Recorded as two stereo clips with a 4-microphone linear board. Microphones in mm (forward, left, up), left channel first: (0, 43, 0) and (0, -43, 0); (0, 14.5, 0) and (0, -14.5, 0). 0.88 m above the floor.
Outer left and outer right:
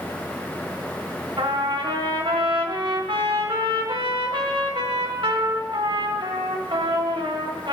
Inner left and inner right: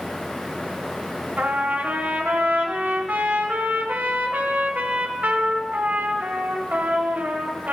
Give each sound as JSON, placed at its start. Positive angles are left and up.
{"t": 1.4, "sound": "a trumpet", "side_deg": -80, "distance_m": 1.5}